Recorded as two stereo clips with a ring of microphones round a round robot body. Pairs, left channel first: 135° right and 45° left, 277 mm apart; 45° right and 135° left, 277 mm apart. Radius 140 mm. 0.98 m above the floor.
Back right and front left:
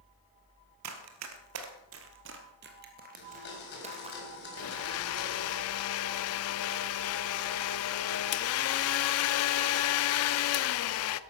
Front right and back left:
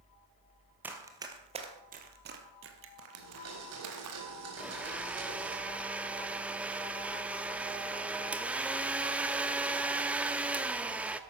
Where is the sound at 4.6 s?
140° right, 0.5 m.